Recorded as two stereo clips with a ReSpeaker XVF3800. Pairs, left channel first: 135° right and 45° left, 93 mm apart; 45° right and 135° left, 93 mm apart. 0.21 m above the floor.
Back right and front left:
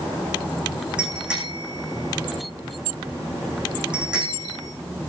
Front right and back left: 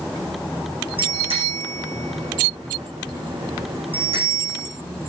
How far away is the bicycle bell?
About 9 m.